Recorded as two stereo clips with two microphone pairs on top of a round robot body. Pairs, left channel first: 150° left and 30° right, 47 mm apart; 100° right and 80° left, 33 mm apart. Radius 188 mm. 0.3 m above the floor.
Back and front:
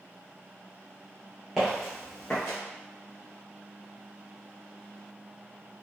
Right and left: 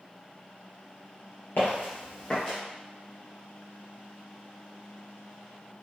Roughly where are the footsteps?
Behind right.